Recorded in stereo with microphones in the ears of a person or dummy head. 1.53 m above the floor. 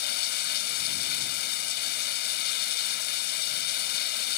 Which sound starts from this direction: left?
Running water, at 0.0 s.